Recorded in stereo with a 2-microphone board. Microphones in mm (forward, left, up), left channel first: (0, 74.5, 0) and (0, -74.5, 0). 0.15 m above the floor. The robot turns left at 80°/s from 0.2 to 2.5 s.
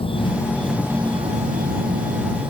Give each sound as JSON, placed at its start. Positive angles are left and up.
{"t": 0.0, "sound": "an insect", "azimuth_deg": 40}